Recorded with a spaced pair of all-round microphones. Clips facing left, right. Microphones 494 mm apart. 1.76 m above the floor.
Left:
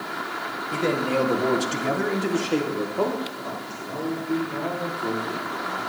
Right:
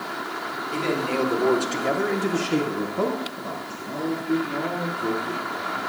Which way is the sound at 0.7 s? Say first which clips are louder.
Left 2 dB; 65° left (ahead or behind).